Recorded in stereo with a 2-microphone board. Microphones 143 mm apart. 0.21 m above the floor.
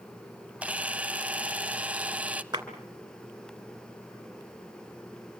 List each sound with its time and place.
0.6 s a camera shutter: 10° right (ahead or behind), 0.8 m
2.5 s a clap: 30° right (ahead or behind), 2.5 m